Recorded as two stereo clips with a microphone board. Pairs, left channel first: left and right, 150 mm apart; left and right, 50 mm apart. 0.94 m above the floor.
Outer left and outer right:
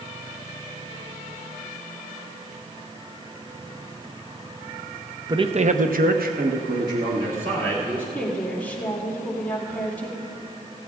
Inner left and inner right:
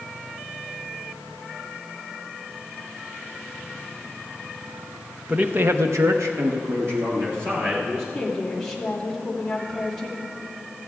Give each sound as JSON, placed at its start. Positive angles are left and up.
{"t": 5.3, "sound": "a man speaking", "side_deg": -30, "distance_m": 0.8}
{"t": 8.1, "sound": "a woman speaking", "side_deg": 10, "distance_m": 2.5}